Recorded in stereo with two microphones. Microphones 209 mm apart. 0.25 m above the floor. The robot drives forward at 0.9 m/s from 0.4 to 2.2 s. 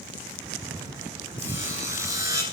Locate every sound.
1.4 s sawing: 10° right (ahead or behind), 2.5 m; by 2.4 s 15° right (ahead or behind), 1.8 m